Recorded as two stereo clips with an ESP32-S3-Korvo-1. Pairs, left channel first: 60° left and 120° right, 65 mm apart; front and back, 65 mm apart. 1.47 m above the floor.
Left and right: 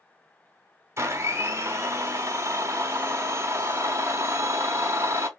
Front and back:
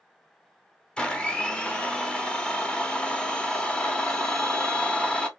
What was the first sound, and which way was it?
A blender, 75° right.